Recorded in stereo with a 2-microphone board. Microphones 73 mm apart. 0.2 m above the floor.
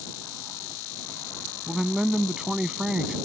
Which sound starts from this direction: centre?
A man speaking, at 1.7 s.